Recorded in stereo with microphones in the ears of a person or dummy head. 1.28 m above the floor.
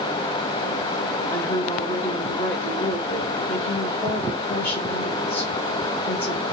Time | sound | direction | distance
1.3 | a woman speaking | 20° left (ahead or behind) | 1.8 m